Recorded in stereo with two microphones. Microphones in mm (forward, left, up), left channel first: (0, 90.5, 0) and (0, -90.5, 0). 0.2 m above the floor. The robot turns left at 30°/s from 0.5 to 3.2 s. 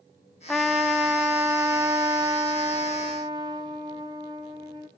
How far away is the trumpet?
About 0.9 m.